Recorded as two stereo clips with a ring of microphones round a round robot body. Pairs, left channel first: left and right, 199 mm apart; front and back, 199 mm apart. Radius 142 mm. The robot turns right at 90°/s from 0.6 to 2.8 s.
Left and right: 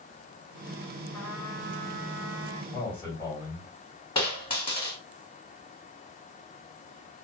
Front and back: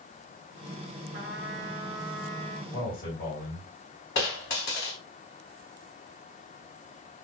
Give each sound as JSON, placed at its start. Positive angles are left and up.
{"t": 1.1, "sound": "a trumpet", "azimuth_deg": 170, "distance_m": 0.7}
{"t": 2.7, "sound": "a man speaking", "azimuth_deg": 25, "distance_m": 2.0}
{"t": 4.2, "sound": "a dropped coin", "azimuth_deg": 25, "distance_m": 1.7}